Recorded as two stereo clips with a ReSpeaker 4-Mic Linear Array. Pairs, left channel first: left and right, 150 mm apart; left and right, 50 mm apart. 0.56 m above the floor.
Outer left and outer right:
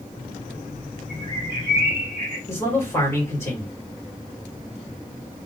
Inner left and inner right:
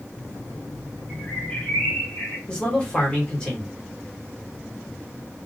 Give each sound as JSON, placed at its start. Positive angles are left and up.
{"t": 1.1, "sound": "a bird", "side_deg": 35, "distance_m": 1.9}
{"t": 2.5, "sound": "a man speaking", "side_deg": 20, "distance_m": 1.6}